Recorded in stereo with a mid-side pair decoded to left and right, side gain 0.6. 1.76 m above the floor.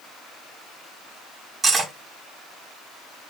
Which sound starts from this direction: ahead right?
Cutlery clinking, at 1.6 s.